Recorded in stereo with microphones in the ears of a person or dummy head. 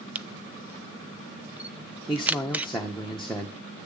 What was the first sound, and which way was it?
A camera shutter, 10° right (ahead or behind).